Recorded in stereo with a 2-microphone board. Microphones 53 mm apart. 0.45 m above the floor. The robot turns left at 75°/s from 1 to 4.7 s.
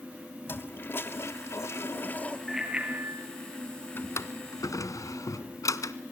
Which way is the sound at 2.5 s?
Straight ahead.